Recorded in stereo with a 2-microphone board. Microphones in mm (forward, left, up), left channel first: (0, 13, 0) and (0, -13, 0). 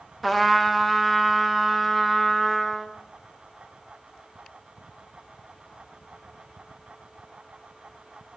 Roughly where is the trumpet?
Centre.